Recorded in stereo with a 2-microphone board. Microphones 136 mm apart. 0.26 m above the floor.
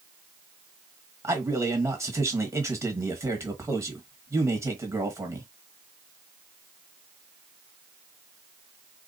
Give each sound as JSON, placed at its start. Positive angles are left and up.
{"t": 1.2, "sound": "a man speaking", "side_deg": -20, "distance_m": 1.5}